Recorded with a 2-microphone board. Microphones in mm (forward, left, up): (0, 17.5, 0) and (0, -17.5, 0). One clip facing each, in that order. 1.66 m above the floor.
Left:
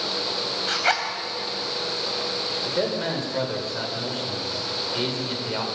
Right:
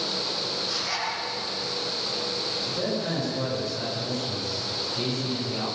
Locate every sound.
0.7 s a zipper: 75° left (ahead or behind), 4 m
2.6 s a man speaking: 55° left (ahead or behind), 7.5 m